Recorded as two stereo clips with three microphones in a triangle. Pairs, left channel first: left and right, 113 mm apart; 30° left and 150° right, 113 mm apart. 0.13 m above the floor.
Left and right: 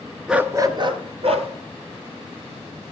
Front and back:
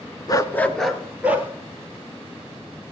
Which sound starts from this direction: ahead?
A dog barking, at 0.3 s.